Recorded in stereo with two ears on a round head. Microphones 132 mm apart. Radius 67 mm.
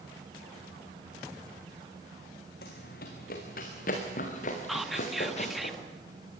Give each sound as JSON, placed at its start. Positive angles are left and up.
{"t": 2.6, "sound": "running footsteps", "side_deg": 75, "distance_m": 4.0}
{"t": 4.7, "sound": "whispering", "side_deg": 0, "distance_m": 1.1}